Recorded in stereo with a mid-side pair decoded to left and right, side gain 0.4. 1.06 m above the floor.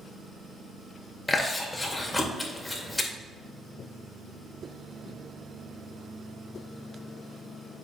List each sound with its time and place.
1.3 s chewing: 15° left, 1.9 m